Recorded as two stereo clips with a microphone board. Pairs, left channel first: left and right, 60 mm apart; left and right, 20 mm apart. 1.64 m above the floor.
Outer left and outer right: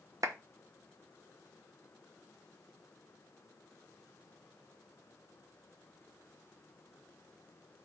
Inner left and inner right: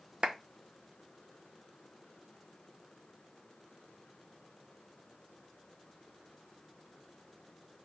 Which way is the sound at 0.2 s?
65° right (ahead or behind).